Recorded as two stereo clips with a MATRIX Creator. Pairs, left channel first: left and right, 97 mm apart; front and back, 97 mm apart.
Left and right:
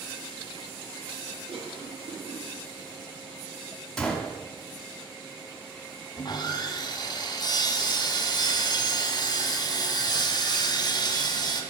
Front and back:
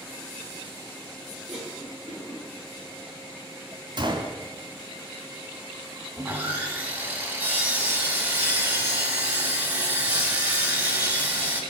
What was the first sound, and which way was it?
A cough, 100° right.